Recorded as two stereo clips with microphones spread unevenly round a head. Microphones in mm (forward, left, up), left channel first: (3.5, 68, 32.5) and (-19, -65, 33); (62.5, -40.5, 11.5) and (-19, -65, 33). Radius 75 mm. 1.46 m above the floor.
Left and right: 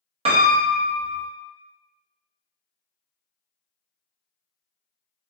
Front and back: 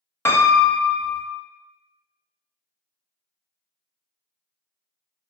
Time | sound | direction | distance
0.2 | a piano | 50° right | 0.5 m